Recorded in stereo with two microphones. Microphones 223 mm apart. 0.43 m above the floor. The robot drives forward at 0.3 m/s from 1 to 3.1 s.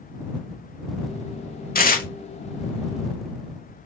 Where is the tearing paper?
40° left (ahead or behind), 0.7 m.